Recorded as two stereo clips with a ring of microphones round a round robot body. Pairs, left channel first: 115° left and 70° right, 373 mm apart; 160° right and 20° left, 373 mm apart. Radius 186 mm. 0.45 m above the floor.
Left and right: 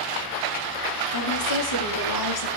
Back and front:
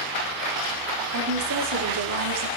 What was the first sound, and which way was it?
A woman speaking, 75° left.